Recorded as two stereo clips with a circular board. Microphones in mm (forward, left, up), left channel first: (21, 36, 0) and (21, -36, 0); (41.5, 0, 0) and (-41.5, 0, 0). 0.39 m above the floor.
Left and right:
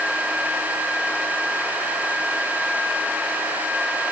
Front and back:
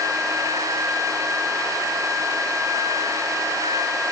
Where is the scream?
I don't hear a scream.